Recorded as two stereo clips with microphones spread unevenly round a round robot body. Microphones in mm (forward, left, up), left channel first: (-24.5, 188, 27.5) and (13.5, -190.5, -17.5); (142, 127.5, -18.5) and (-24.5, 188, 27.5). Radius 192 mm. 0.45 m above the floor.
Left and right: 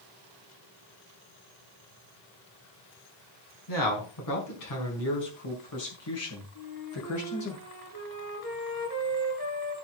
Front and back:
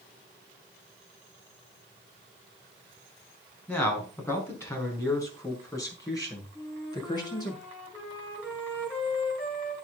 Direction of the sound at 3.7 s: 55° left.